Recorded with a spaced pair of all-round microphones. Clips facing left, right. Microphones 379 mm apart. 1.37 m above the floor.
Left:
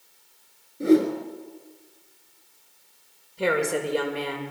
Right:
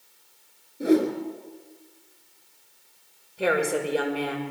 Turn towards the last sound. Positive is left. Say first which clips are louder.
# even
turn(degrees=5)  # may be behind; listen again after turning